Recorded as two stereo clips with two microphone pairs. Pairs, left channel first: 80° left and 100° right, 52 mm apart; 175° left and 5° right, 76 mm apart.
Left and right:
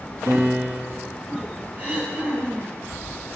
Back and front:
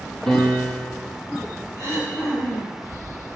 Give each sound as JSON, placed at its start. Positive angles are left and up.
{"t": 0.3, "sound": "a piano", "azimuth_deg": -100, "distance_m": 1.4}
{"t": 1.8, "sound": "throat clearing", "azimuth_deg": -150, "distance_m": 3.0}